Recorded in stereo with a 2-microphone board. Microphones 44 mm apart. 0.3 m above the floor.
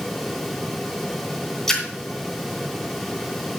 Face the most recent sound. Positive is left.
turn(degrees=10)  # may be behind; listen again after turning